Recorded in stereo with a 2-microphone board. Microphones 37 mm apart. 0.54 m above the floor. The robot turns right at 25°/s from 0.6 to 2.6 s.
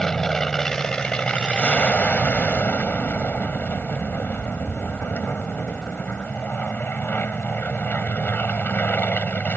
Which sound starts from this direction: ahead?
An aircraft, at 0.0 s.